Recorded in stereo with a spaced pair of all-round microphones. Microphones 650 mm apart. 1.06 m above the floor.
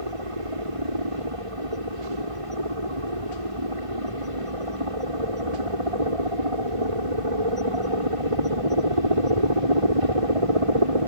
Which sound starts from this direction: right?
A helicopter, at 0.0 s.